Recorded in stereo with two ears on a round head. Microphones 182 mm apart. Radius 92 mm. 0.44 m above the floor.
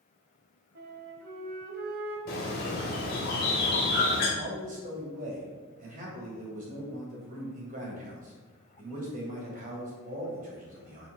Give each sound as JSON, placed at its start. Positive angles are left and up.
{"t": 0.8, "sound": "a flute", "side_deg": -50, "distance_m": 1.2}
{"t": 2.3, "sound": "a bird", "side_deg": 45, "distance_m": 2.0}
{"t": 4.4, "sound": "a man speaking", "side_deg": -45, "distance_m": 2.5}